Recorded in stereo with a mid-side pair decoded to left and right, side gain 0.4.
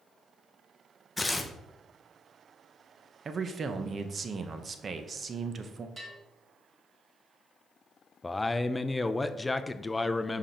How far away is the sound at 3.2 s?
About 0.8 m.